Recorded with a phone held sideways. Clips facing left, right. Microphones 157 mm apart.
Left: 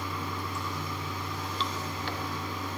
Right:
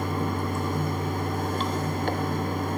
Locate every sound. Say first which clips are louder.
0.0 s running water: right 8 dB; 50° right (ahead or behind), 0.8 m